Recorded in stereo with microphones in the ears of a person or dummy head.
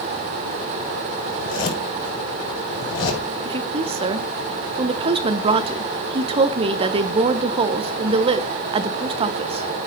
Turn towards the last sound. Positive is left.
turn(degrees=-30)  # may be behind; listen again after turning